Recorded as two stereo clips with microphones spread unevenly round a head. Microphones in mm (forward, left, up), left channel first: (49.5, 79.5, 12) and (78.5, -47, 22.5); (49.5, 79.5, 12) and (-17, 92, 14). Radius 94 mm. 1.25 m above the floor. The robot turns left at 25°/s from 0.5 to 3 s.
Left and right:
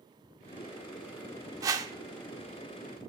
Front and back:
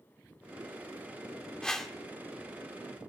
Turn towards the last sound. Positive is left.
turn(degrees=-120)